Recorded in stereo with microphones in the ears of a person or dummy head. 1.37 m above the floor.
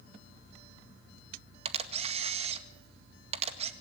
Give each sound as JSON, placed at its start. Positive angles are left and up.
{"t": 1.6, "sound": "a camera shutter", "side_deg": -40, "distance_m": 1.9}